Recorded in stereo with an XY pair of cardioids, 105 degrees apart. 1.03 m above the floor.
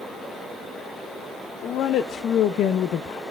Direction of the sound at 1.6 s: 70° left.